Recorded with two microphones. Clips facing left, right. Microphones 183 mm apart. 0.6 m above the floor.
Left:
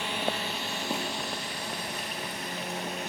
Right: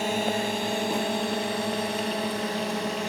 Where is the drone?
45° right (ahead or behind); by 3.1 s 70° right (ahead or behind).